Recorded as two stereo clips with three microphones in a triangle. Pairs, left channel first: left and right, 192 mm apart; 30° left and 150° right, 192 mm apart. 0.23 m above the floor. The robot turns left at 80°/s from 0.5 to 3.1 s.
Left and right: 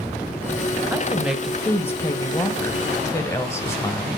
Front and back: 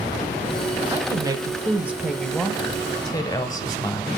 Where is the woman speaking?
140° right, 0.9 m; by 4.1 s 45° left, 0.9 m.